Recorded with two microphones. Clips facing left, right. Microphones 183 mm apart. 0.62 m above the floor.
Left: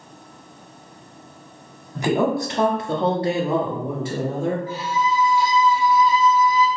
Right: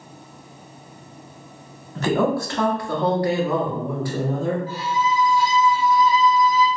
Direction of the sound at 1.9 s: 15° left (ahead or behind).